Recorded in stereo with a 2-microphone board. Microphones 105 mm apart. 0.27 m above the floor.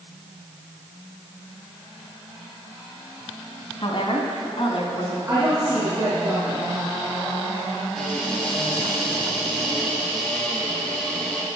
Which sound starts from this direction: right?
A woman speaking, at 5.3 s.